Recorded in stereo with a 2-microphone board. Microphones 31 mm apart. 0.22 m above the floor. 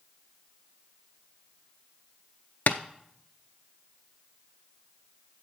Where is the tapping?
75° left (ahead or behind), 0.5 m.